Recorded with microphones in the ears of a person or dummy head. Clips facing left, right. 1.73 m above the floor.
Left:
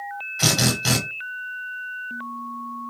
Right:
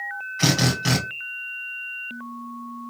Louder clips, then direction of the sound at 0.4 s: Right 1 dB; 5° left (ahead or behind).